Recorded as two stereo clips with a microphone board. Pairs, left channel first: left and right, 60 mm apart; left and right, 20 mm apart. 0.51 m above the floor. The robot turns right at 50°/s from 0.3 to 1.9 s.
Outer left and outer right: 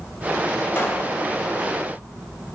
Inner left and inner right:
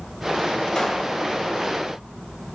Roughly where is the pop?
Left.